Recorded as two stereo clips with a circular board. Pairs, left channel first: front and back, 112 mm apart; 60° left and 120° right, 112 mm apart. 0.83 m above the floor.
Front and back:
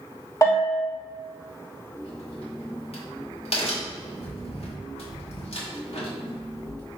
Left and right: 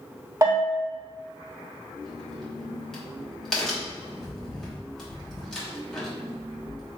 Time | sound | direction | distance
0.4 | a bell | 65° right | 1.1 m
2.0 | a crack | 25° right | 1.4 m